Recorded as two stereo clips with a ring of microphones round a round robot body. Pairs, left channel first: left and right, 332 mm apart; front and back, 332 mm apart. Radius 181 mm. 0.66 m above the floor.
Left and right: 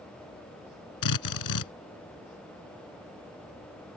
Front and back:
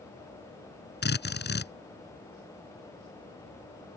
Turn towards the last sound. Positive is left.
turn(degrees=60)